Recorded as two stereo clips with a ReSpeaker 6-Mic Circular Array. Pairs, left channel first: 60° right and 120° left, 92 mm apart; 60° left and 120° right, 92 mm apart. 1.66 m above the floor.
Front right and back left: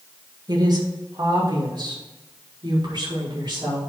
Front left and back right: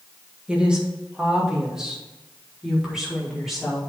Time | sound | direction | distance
0.5 | a woman speaking | 160° left | 1.8 m